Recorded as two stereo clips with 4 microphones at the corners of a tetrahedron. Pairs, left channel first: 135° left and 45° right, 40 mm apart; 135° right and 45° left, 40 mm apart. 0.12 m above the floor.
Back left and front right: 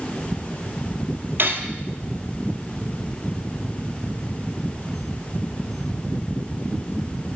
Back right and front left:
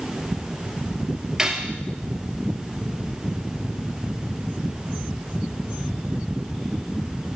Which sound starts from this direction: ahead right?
Cutlery clinking, at 1.4 s.